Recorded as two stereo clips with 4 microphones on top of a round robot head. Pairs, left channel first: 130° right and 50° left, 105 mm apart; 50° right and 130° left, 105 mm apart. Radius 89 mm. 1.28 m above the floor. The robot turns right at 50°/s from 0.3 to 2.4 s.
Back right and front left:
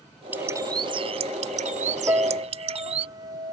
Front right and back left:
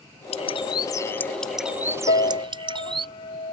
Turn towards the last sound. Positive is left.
turn(degrees=-5)